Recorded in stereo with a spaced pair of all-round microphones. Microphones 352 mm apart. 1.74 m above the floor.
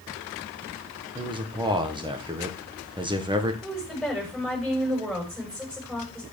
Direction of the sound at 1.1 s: 15° right (ahead or behind).